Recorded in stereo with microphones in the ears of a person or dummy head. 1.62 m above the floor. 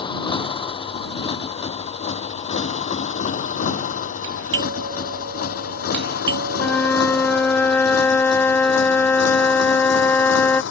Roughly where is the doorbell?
Right.